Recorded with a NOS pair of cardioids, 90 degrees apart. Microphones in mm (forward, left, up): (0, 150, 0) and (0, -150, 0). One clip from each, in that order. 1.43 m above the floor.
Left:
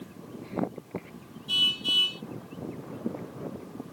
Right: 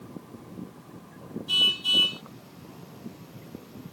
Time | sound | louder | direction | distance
1.5 | a car horn | right 2 dB | 20° right | ?